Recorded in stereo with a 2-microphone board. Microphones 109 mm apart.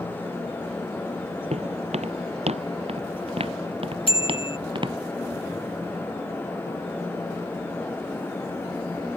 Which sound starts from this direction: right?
Footsteps, at 1.5 s.